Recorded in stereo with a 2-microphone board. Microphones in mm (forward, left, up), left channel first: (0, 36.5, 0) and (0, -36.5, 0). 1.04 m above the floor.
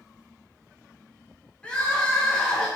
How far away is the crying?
About 0.5 m.